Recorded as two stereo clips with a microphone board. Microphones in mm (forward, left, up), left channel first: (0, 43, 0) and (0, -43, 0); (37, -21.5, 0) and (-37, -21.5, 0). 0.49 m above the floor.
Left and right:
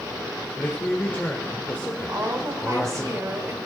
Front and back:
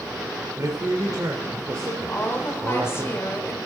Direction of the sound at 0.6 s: 155° left.